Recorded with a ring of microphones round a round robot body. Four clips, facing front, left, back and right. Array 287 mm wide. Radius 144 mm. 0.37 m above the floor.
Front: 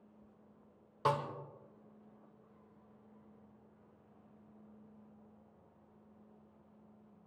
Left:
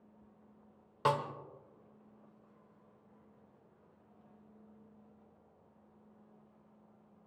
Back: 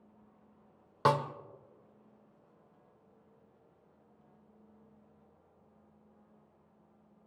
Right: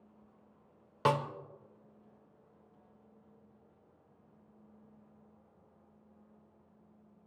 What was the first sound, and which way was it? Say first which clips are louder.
A snare drum: right 2 dB, back 5 dB; 150° right.